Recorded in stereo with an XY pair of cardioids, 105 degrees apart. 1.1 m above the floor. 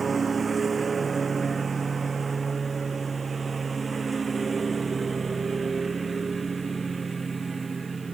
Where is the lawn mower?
30° right; by 8.1 s 25° right.